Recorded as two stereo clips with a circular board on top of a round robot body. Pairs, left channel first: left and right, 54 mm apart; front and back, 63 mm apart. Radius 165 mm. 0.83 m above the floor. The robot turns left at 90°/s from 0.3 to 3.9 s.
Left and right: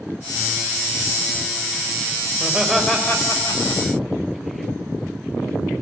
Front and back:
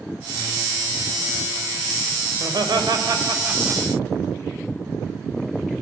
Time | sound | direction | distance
2.3 | laughter | 140° right | 4 m